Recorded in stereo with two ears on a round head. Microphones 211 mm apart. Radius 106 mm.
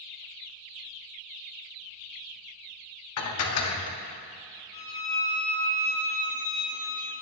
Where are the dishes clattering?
70° left (ahead or behind), 0.7 m.